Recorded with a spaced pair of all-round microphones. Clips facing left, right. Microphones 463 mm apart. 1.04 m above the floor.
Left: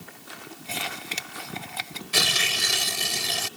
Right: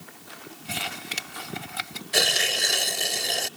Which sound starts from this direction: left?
Tearing paper, at 2.1 s.